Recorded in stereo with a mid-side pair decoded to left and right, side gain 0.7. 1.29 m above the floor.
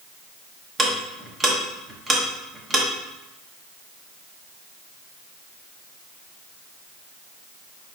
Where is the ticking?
20° right, 1.1 m.